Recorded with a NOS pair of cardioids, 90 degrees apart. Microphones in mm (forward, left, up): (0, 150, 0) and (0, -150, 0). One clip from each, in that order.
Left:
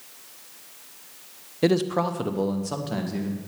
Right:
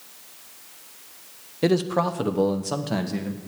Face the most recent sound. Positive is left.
turn(degrees=-20)